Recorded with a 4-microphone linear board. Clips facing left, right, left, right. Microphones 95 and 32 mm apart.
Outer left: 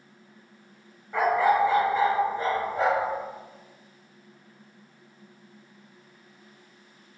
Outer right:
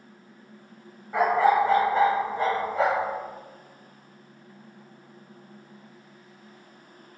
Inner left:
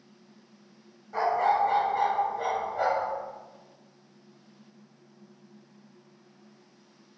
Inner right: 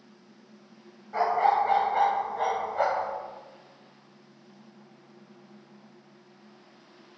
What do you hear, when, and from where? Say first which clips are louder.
1.1 s a dog barking: outer right 1 dB, inner right 1 dB; 10° right (ahead or behind), 0.9 m; by 3.1 s 90° right, 1.9 m